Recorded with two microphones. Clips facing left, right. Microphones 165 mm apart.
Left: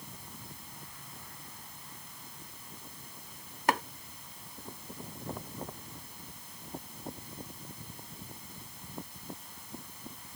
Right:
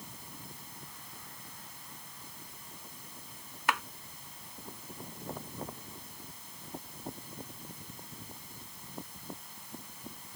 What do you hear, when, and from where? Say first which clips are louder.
3.7 s chopping: left 4 dB; 40° left (ahead or behind)